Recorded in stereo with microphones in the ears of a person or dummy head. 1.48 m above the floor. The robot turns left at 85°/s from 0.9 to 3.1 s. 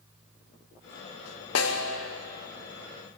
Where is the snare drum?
105° left, 0.9 m; by 2.0 s 70° left, 0.9 m.